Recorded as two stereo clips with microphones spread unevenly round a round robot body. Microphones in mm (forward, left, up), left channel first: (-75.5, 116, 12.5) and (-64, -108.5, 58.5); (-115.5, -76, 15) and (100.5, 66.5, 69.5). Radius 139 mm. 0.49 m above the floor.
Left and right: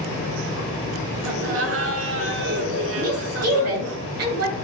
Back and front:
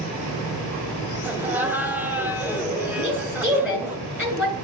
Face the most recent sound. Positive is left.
turn(degrees=-50)